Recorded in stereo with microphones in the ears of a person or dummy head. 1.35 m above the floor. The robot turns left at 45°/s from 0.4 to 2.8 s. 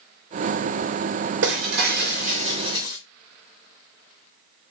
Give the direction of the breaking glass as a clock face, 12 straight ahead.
3 o'clock.